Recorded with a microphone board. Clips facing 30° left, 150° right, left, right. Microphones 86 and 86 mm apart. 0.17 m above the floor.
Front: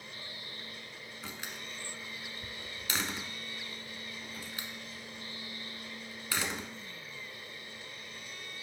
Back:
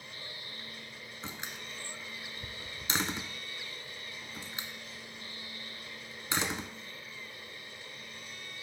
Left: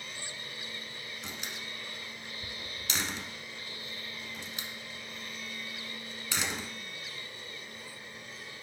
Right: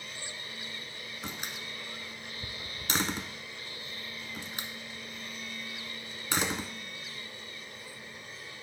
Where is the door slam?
95° right, 1.0 m.